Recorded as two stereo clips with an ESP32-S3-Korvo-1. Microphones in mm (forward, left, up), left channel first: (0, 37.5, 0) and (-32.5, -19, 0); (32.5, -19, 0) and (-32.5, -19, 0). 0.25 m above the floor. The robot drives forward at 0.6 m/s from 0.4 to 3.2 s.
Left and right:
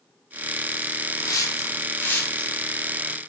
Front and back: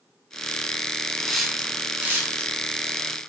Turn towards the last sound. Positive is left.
turn(degrees=145)